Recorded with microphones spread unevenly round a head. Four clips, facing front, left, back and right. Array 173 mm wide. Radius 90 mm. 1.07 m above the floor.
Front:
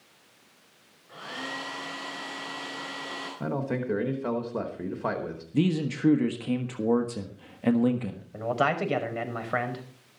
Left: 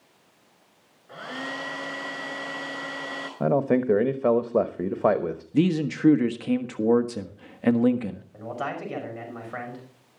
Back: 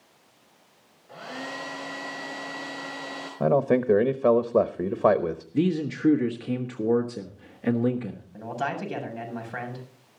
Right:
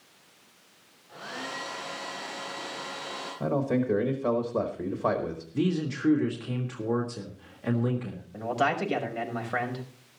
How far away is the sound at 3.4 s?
About 1.0 m.